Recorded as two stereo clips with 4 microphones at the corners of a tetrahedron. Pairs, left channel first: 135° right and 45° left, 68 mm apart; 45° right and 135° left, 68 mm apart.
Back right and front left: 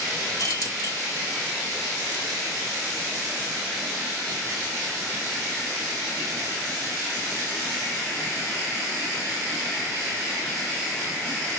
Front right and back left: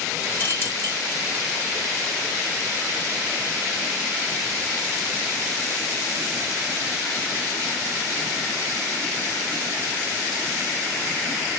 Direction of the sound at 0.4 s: 105° right.